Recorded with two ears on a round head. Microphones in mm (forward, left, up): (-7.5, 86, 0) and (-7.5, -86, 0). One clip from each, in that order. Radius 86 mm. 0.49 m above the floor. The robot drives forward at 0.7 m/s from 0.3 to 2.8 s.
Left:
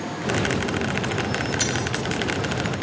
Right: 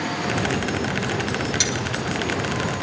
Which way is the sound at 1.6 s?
65° right (ahead or behind).